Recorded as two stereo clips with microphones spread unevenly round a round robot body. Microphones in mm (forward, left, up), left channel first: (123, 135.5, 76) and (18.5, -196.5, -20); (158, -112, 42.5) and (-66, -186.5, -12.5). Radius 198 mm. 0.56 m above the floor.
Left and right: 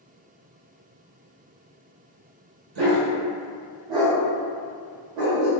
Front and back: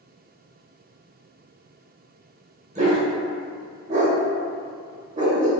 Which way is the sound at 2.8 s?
100° right.